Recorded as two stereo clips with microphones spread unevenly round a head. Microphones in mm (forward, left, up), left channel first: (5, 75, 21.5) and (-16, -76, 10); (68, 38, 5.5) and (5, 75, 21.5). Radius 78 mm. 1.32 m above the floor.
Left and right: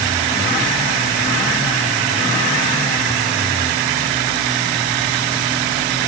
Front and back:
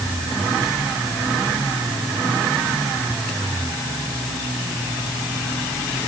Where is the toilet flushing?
I don't hear a toilet flushing.